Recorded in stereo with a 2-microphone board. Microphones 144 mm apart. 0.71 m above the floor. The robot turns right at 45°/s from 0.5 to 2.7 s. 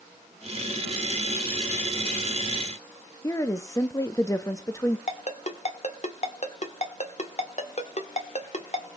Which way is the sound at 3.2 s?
20° left (ahead or behind).